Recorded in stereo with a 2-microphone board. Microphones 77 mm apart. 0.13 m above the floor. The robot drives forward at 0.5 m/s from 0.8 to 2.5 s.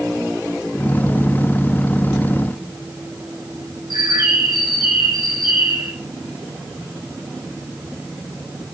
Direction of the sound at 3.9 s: 70° right (ahead or behind).